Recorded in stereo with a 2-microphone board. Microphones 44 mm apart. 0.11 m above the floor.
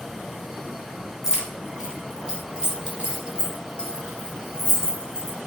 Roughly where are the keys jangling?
Centre.